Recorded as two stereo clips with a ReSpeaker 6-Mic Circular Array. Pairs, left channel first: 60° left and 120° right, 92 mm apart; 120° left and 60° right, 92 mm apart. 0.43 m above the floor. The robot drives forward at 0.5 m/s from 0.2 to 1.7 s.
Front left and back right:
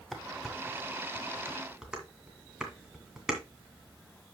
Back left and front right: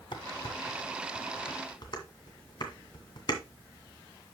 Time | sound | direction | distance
0.1 | dishes clattering | 150° left | 1.5 m